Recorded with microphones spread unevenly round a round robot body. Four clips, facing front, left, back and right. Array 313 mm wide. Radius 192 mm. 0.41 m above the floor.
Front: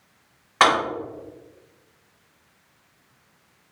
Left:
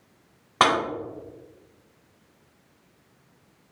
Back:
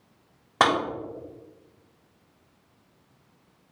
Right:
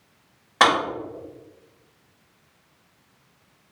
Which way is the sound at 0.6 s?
145° left.